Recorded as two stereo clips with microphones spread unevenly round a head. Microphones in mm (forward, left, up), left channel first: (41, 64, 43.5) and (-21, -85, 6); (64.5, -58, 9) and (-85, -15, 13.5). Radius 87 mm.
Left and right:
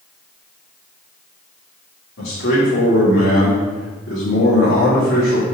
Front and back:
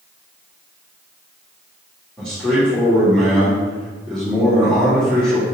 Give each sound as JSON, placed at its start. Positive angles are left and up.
{"t": 2.2, "sound": "a man speaking", "azimuth_deg": 70, "distance_m": 2.5}